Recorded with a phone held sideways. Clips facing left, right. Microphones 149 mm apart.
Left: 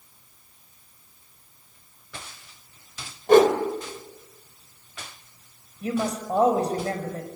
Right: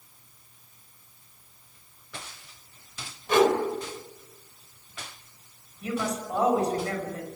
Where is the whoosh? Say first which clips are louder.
Left 6 dB; 45° left (ahead or behind), 2.5 m.